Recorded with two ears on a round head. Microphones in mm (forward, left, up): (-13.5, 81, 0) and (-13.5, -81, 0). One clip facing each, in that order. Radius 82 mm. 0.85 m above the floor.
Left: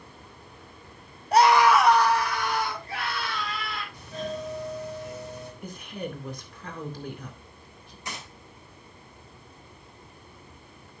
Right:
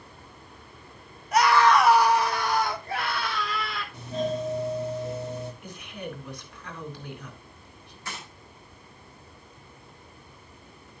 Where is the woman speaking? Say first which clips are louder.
Left 2 dB; 40° left (ahead or behind), 2.5 m.